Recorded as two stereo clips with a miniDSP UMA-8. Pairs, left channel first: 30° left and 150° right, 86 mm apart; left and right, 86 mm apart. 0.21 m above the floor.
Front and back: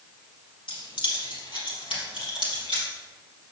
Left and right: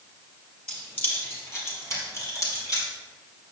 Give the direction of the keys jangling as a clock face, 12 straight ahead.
11 o'clock.